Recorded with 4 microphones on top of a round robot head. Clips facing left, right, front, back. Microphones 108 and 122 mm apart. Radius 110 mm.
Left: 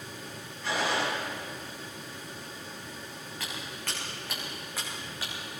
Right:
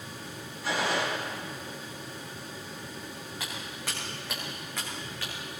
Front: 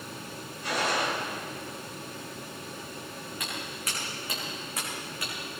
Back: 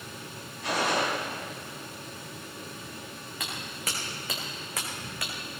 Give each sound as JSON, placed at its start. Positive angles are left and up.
{"t": 0.6, "sound": "a gunshot", "azimuth_deg": -175, "distance_m": 8.0}
{"t": 3.4, "sound": "footsteps", "azimuth_deg": -165, "distance_m": 4.0}